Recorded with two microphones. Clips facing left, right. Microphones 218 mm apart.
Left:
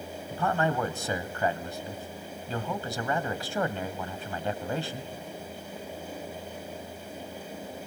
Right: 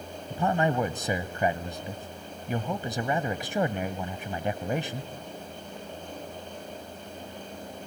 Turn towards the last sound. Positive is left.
turn(degrees=-20)  # may be behind; listen again after turning